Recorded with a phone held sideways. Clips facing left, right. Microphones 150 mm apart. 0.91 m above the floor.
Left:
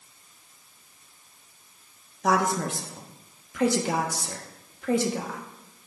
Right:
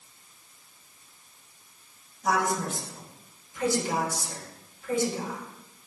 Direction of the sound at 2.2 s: 70° left (ahead or behind).